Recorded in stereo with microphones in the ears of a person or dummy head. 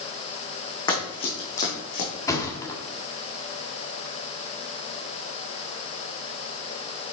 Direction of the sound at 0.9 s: 15° left (ahead or behind).